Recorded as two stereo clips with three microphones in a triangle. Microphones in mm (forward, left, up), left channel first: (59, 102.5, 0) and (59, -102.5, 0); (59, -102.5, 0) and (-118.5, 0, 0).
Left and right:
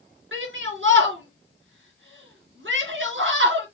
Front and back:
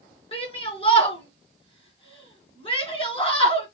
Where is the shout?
95° right, 3.5 m.